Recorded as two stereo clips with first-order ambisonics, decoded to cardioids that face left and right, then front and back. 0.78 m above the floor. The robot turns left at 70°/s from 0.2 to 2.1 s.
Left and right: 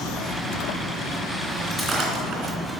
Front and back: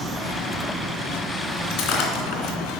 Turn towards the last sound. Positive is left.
turn(degrees=-30)